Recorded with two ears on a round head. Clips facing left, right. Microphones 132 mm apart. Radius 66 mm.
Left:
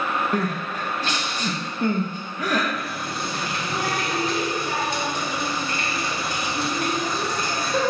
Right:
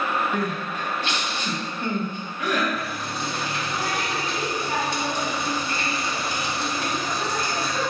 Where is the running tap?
45° left (ahead or behind), 1.4 m.